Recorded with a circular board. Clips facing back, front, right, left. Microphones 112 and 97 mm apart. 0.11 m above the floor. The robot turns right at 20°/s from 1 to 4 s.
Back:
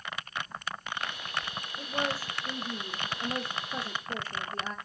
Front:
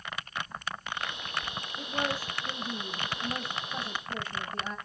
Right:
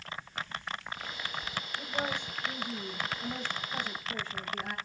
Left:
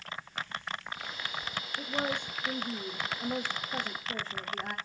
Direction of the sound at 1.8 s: 90° left.